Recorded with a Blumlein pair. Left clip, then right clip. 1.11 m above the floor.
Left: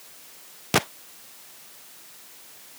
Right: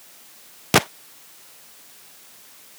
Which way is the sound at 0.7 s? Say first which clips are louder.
Right 5 dB; 15° right.